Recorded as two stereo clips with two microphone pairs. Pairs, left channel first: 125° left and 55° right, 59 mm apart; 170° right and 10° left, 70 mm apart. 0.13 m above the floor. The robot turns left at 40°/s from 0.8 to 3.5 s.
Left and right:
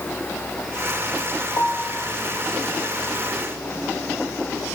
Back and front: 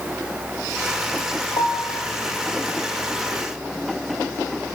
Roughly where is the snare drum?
I don't hear a snare drum.